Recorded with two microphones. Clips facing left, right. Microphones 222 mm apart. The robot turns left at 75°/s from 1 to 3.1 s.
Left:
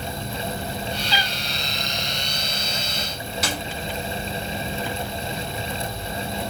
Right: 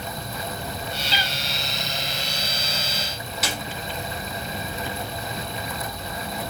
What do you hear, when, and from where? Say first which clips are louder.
1.1 s a cat meowing: left 2 dB; 40° right (ahead or behind), 1.4 m; by 1.3 s 30° right (ahead or behind), 1.4 m
3.4 s a snare drum: left 2 dB; centre (ahead or behind), 1.8 m